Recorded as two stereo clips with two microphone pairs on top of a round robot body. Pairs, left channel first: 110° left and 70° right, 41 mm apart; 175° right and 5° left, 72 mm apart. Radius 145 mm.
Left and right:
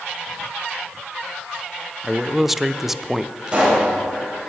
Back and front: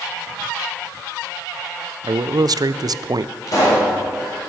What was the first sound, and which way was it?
A man speaking, 15° left.